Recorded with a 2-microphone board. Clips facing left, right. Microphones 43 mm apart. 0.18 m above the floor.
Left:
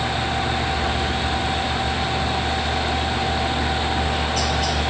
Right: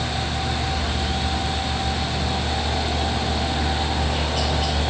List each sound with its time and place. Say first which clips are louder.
0.0 s a helicopter: left 3 dB; 10° right (ahead or behind)